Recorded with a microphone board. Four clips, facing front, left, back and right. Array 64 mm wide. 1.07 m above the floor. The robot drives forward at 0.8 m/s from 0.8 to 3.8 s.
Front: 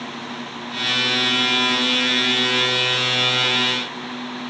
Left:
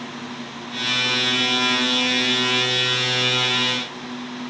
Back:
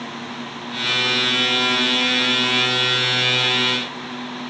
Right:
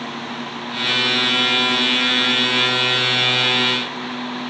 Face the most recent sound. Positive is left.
No sound to turn to.